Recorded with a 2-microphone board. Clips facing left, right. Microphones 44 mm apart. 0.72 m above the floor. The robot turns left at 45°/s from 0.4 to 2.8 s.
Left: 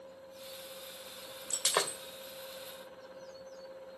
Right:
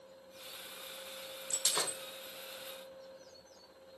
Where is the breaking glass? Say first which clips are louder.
Left 5 dB; 80° left, 1.7 m; by 2.0 s 60° left (ahead or behind), 1.7 m.